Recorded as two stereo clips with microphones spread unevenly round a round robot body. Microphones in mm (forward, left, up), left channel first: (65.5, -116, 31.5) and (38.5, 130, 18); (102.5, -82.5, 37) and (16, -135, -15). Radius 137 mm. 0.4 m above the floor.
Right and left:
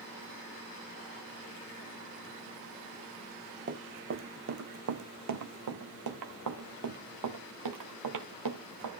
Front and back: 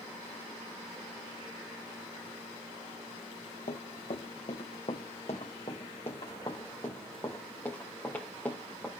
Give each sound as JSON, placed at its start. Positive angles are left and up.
{"t": 3.7, "sound": "running footsteps", "azimuth_deg": 50, "distance_m": 1.6}